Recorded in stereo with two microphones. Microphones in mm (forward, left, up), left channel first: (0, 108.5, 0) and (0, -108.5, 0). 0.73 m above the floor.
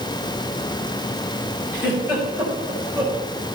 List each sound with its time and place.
1.7 s a giggle: 10° right (ahead or behind), 4 m